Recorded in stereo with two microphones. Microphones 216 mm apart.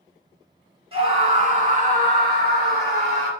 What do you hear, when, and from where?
0.9 s a scream: 25° right (ahead or behind), 1.4 m; by 3.3 s 45° right (ahead or behind), 1.9 m